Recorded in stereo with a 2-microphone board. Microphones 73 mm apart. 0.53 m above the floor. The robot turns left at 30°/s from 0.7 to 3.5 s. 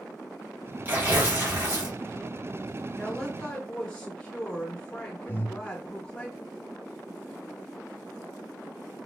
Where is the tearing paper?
40° right, 1.6 m; by 1.9 s 70° right, 1.6 m.